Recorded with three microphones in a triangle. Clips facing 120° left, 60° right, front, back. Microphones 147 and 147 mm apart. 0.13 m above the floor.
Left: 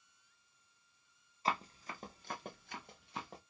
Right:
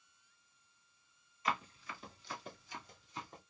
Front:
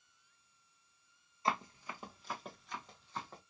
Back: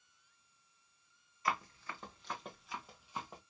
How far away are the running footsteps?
About 1.0 m.